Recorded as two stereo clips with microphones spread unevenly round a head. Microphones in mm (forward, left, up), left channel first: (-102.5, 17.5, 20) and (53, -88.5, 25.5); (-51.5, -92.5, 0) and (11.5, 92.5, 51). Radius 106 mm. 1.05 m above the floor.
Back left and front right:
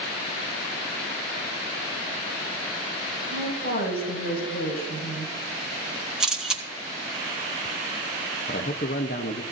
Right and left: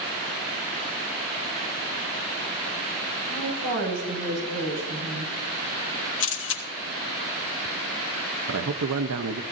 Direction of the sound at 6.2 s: 120° right.